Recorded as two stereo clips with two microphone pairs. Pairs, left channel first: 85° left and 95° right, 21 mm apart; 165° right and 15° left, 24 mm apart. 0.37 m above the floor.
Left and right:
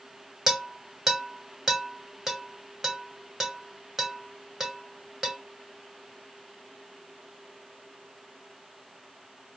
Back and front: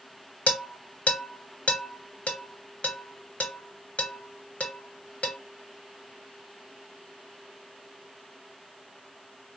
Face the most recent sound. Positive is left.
turn(degrees=-160)